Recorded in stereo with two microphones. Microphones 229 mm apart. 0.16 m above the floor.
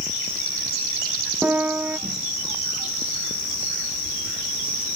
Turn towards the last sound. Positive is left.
turn(degrees=-5)  # may be behind; listen again after turning